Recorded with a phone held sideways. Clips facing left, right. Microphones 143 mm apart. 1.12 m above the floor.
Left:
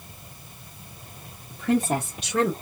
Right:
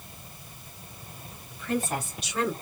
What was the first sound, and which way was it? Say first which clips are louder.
A woman speaking: left 6 dB; 75° left (ahead or behind).